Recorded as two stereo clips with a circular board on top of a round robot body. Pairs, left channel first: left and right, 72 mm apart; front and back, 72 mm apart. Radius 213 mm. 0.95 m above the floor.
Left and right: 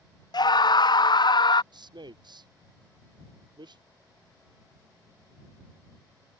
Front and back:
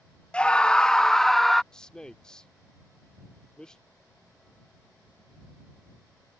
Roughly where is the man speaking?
Right.